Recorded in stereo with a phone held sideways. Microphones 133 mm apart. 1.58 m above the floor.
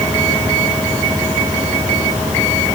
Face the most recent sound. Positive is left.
No sound to turn to.